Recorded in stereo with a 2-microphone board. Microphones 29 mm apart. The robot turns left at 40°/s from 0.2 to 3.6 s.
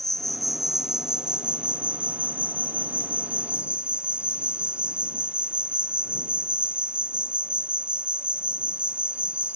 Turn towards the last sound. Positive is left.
turn(degrees=-130)